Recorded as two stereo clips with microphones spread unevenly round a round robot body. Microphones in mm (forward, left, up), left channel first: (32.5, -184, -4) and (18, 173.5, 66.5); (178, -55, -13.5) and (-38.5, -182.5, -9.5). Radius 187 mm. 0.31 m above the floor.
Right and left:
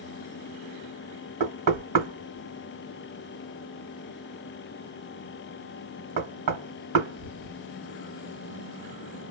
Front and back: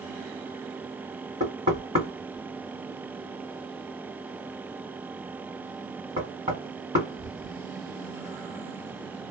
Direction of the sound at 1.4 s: 140° left.